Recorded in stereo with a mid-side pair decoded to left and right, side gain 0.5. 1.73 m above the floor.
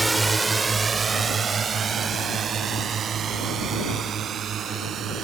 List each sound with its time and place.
0.0 s a drone: 15° right; by 5.2 s 55° right